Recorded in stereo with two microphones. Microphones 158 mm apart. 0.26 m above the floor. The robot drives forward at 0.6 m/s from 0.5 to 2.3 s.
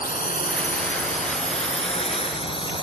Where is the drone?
65° left (ahead or behind); by 2.8 s 35° left (ahead or behind).